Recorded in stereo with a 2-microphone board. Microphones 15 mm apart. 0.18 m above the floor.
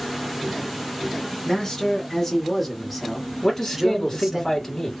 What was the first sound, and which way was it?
A man speaking, 30° left (ahead or behind).